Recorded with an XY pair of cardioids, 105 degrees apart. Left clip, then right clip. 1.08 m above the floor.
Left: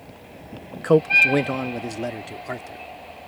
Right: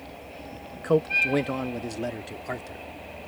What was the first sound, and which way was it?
A man speaking, 45° left.